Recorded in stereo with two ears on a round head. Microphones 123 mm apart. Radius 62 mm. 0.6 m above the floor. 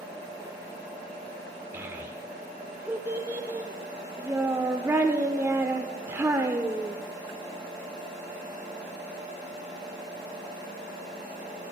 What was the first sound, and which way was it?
A child speaking, 15° right (ahead or behind).